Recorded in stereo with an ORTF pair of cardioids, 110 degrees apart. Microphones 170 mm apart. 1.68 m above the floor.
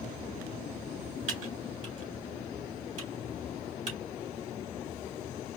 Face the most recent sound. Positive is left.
turn(degrees=-45)